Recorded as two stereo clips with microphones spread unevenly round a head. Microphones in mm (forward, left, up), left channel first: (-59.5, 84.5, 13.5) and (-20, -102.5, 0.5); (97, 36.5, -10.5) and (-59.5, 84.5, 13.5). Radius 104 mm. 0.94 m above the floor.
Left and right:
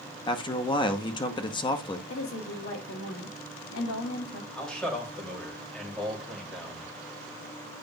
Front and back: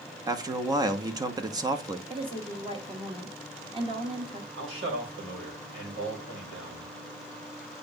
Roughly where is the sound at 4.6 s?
Behind.